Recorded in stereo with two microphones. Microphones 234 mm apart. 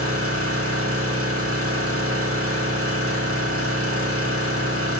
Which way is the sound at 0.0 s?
75° right (ahead or behind).